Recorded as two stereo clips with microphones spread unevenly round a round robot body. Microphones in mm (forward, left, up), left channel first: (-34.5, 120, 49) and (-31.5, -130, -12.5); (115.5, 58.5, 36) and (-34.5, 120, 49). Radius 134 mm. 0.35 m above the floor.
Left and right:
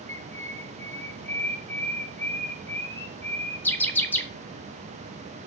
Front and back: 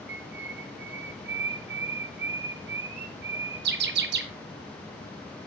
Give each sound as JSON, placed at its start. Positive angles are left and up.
{"t": 0.1, "sound": "a bird", "azimuth_deg": 180, "distance_m": 1.5}